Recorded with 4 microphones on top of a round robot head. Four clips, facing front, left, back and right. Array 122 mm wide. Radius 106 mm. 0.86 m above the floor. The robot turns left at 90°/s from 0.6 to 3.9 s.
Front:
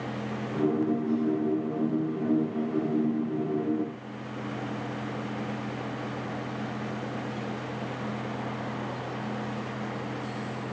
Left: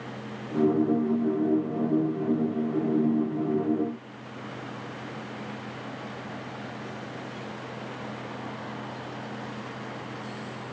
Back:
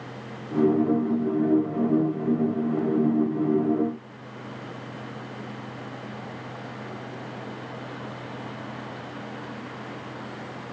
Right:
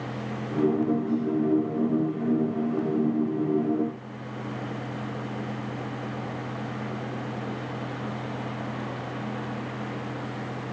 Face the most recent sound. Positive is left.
No sound to turn to.